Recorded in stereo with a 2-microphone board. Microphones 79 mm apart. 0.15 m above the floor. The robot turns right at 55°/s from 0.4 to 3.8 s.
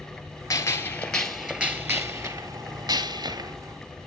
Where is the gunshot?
135° left, 1.2 m; by 3.6 s 60° right, 1.2 m.